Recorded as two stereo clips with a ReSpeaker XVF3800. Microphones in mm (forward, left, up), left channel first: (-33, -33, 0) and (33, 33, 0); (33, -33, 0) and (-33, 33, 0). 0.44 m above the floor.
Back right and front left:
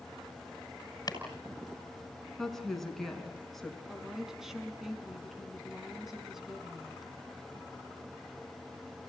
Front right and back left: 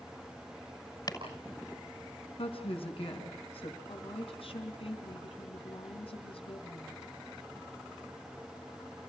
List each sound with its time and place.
1.1 s chopping: 90° right, 6.5 m
2.4 s a woman speaking: 50° right, 5.5 m
3.9 s a woman speaking: 40° right, 4 m